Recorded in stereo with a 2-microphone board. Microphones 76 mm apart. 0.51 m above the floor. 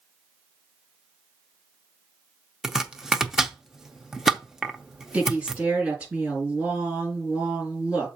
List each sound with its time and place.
2.6 s chopping: 5° right (ahead or behind), 0.7 m
5.1 s a woman speaking: 15° right (ahead or behind), 4.5 m